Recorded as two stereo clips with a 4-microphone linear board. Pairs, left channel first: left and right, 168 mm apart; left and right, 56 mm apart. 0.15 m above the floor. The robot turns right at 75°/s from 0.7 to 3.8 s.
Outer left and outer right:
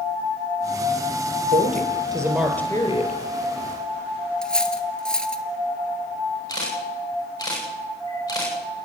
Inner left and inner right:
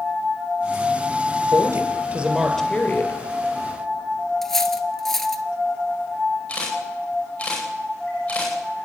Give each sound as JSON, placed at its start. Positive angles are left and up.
{"t": 1.5, "sound": "a woman speaking", "azimuth_deg": -70, "distance_m": 3.5}
{"t": 4.4, "sound": "cutlery clinking", "side_deg": 5, "distance_m": 1.3}
{"t": 6.5, "sound": "a camera shutter", "side_deg": 20, "distance_m": 10.0}